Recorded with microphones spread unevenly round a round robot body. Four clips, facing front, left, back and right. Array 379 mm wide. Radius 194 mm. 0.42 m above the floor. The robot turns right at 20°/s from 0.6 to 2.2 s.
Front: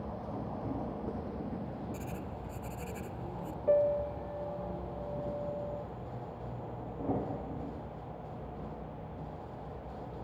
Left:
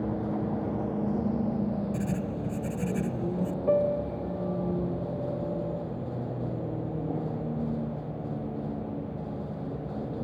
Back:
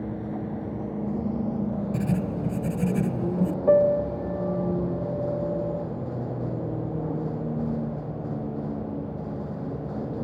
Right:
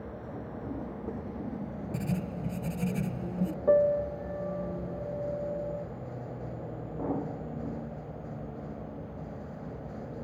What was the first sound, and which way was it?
A vehicle, 125° left.